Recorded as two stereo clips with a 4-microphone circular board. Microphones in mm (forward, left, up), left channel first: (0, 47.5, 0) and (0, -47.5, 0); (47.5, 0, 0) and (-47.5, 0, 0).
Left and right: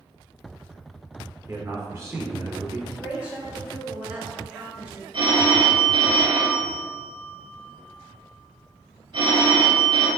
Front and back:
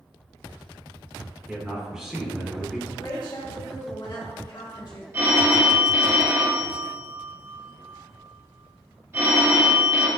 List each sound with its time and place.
1.5 s a man speaking: 100° right, 1.0 m
2.9 s a woman speaking: 15° right, 1.2 m
5.1 s a phone ringing: 120° right, 1.1 m